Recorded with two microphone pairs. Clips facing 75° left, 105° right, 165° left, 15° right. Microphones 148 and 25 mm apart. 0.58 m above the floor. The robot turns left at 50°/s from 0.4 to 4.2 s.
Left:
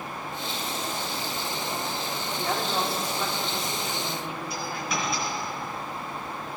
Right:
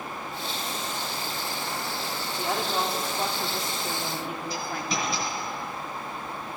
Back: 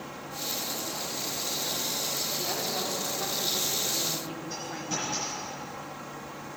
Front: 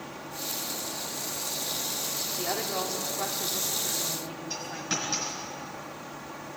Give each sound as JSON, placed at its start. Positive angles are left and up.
{"t": 2.4, "sound": "a woman speaking", "azimuth_deg": -25, "distance_m": 1.0}
{"t": 4.5, "sound": "a dropped coin", "azimuth_deg": -55, "distance_m": 3.0}